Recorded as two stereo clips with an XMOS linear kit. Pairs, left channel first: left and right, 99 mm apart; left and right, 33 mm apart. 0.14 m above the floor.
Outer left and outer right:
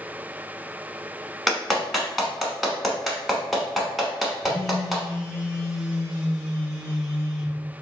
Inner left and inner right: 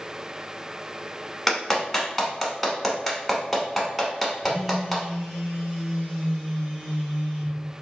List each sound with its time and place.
1.5 s a clap: centre (ahead or behind), 0.8 m
4.4 s a phone buzzing: 5° right (ahead or behind), 1.8 m